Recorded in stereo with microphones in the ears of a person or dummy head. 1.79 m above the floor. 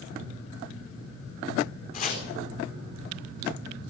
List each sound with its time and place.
1.9 s chopping: 45° left (ahead or behind), 4 m